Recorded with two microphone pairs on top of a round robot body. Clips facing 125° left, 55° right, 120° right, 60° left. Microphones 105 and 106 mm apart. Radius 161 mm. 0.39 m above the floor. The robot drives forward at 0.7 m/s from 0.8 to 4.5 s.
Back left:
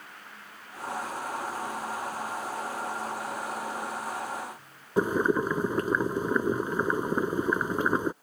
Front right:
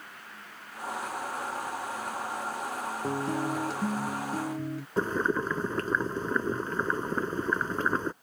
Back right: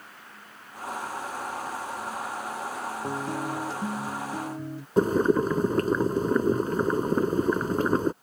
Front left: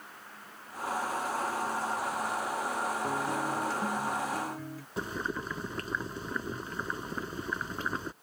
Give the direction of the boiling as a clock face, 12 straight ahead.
5 o'clock.